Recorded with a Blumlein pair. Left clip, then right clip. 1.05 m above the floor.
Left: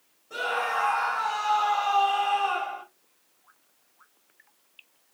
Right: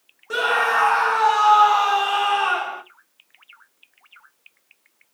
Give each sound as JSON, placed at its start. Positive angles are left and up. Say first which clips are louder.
{"t": 0.3, "sound": "a scream", "louder": "right 8 dB", "azimuth_deg": -45, "distance_m": 1.0}